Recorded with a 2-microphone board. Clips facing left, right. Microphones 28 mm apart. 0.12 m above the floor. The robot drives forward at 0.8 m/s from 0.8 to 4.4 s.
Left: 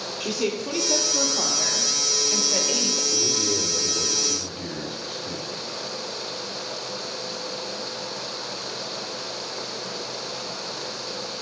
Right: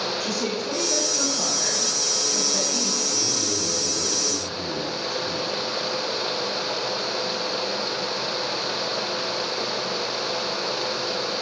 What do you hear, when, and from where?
0.2 s a woman speaking: 50° left (ahead or behind), 3 m; by 3.0 s 60° left (ahead or behind), 2.5 m
3.1 s a man speaking: 60° left (ahead or behind), 2.5 m; by 5.5 s 50° left (ahead or behind), 2.5 m